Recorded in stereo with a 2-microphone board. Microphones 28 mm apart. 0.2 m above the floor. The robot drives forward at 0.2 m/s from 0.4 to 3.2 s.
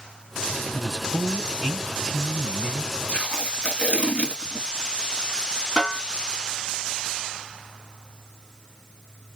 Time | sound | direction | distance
0.7 | a man speaking | 20° right (ahead or behind) | 1.3 m
3.1 | tape being pulled | 45° left (ahead or behind) | 1.6 m
5.8 | a snare drum | 15° left (ahead or behind) | 2 m